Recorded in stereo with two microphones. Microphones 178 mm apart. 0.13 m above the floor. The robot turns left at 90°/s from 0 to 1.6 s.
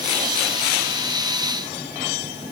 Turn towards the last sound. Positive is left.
No sound to turn to.